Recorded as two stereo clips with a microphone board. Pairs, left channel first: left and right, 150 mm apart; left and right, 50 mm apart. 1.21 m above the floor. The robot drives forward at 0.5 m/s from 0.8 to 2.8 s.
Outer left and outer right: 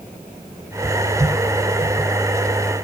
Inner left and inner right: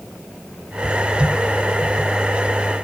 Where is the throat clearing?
I don't hear throat clearing.